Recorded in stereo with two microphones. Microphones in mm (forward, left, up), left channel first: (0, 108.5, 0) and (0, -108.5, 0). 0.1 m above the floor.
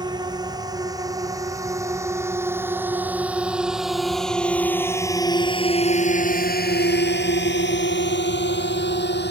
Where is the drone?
20° right (ahead or behind); by 9.3 s 50° left (ahead or behind).